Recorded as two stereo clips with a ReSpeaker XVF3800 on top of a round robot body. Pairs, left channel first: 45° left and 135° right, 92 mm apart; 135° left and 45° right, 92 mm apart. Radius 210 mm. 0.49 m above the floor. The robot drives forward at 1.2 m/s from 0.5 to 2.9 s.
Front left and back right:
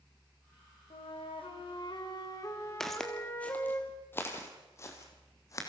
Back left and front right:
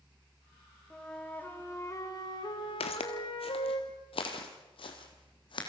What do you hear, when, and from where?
0.9 s a flute: 50° left, 2.5 m; by 3.8 s 110° left, 2.5 m
2.8 s footsteps: 130° left, 1.0 m; by 5.7 s 100° left, 2.5 m